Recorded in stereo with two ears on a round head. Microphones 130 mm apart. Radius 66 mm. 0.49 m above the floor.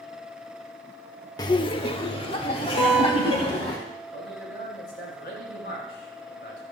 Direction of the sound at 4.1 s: 75° left (ahead or behind).